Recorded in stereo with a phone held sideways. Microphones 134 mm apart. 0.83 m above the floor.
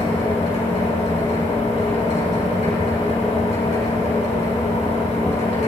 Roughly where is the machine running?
Left.